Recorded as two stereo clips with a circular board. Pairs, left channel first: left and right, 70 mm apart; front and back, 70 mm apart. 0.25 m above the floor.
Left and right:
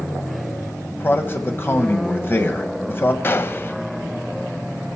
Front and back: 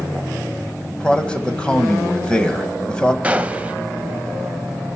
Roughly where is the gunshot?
Behind left.